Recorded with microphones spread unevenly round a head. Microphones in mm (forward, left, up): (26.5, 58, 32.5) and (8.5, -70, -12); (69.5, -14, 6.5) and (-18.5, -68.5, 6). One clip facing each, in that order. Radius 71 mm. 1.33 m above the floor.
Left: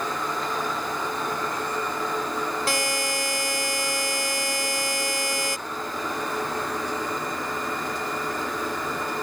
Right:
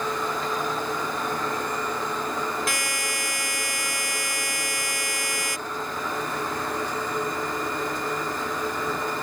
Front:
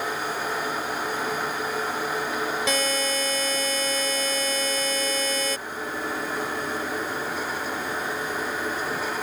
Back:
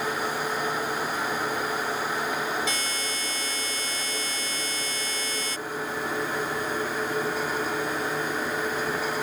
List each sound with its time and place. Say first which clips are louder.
2.7 s a buzzer: left 4 dB, front 6 dB; 35° left